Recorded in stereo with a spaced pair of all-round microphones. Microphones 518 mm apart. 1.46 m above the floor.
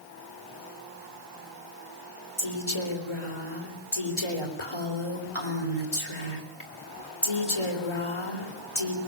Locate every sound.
2.4 s a woman speaking: 70° left (ahead or behind), 3.5 m